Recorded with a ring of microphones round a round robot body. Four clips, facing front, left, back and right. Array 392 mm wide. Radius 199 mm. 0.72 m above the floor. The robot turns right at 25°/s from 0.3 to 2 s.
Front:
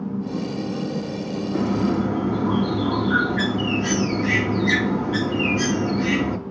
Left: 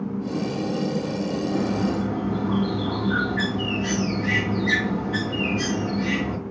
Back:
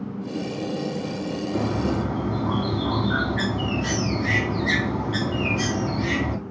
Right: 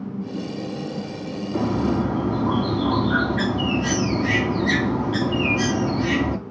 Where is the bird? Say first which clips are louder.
Right 5 dB, front 4 dB; 110° right, 3 m; by 6.4 s 95° right, 3 m.